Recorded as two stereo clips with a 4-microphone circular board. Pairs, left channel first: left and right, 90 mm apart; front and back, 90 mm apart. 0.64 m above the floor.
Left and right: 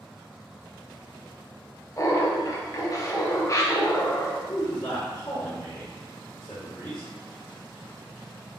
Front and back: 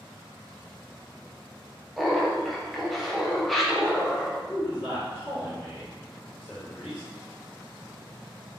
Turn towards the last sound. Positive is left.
turn(degrees=65)